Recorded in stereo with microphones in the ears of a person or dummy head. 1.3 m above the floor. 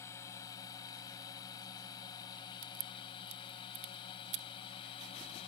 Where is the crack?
40° right (ahead or behind).